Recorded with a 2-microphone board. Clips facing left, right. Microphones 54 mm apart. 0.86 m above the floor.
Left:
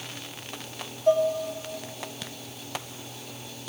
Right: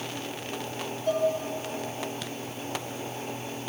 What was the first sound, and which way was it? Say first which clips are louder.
Dishes clattering: left 4 dB; 30° left (ahead or behind).